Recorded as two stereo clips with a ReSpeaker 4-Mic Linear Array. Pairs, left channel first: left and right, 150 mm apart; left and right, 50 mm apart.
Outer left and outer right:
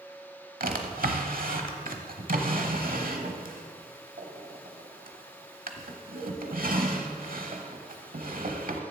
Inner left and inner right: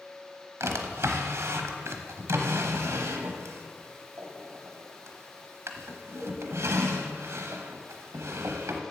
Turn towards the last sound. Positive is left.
turn(degrees=-70)  # may be behind; listen again after turning